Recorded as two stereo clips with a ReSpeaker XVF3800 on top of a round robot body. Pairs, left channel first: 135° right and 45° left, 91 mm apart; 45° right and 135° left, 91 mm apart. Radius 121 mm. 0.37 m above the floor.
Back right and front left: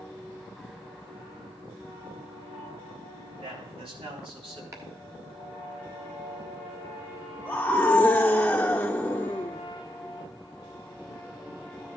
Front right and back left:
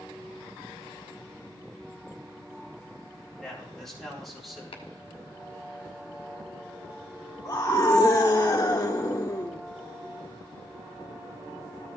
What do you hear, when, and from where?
3.4 s a man speaking: 35° left, 4 m; by 4.6 s 45° left, 4 m
4.7 s chopping: 15° right, 1.3 m
7.5 s a scream: 70° right, 1.3 m